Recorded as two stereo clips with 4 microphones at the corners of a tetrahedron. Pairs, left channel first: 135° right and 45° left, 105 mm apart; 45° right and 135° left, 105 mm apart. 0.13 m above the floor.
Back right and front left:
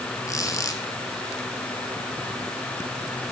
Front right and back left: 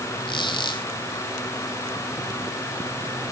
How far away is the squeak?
About 3 m.